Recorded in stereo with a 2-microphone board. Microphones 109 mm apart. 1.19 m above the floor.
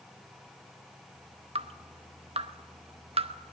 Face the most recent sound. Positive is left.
turn(degrees=-65)  # may be behind; listen again after turning